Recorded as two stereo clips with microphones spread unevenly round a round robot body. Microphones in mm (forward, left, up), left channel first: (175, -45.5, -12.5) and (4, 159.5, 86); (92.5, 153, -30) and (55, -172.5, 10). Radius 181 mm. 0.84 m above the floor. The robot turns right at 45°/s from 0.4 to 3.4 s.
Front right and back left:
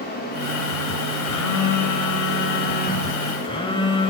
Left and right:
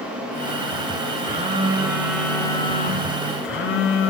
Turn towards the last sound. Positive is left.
turn(degrees=40)